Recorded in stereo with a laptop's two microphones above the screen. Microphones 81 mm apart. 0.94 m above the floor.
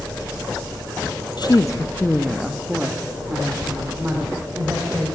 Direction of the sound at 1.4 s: 60° left (ahead or behind).